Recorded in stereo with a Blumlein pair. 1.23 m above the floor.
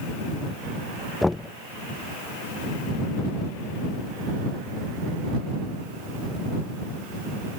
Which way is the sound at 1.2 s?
5° left.